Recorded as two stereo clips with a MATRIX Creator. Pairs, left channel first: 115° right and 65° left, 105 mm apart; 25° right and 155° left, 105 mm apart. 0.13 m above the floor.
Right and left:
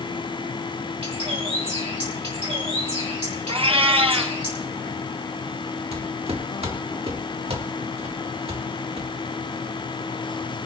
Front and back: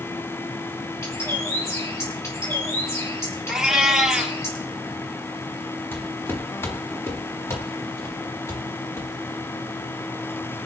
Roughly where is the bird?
Ahead left.